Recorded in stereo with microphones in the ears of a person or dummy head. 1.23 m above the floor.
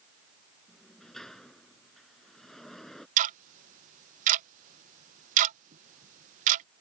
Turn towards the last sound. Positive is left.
turn(degrees=-45)  # may be behind; listen again after turning